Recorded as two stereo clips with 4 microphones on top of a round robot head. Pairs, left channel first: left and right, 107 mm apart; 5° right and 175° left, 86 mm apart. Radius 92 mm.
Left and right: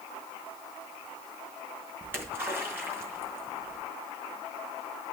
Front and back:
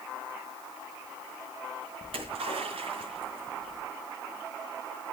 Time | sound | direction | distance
2.0 | a splash | 160° right | 4.5 m